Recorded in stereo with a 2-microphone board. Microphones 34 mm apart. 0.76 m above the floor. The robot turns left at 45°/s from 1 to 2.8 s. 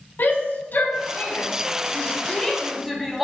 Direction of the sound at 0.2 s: 70° left (ahead or behind).